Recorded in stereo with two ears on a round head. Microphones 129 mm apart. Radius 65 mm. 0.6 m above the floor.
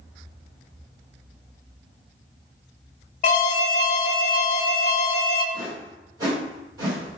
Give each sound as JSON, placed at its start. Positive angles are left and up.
{"t": 3.2, "sound": "an alarm", "side_deg": 55, "distance_m": 0.7}
{"t": 5.5, "sound": "a whoosh", "side_deg": -30, "distance_m": 1.5}